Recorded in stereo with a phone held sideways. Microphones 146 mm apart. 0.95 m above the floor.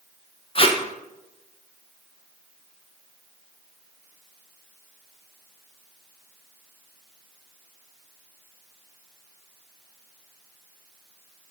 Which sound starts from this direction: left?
Tape being pulled, at 0.6 s.